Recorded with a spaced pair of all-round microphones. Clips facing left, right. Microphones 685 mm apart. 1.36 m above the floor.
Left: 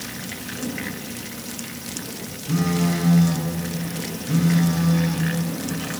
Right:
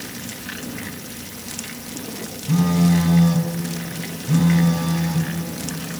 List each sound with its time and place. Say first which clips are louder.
2.5 s a phone buzzing: right 4 dB; 30° right (ahead or behind), 3 m